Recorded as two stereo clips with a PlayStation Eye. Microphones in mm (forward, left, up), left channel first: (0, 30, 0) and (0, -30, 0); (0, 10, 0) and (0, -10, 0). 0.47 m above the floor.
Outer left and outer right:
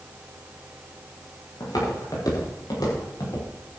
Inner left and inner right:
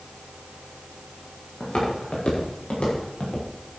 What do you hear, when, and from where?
1.6 s footsteps: 85° left, 7.5 m